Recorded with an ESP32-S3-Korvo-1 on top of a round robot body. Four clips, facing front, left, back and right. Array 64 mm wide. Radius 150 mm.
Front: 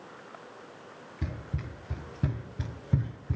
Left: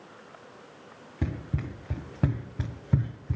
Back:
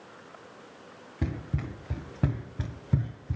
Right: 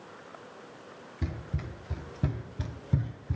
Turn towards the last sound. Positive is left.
turn(degrees=55)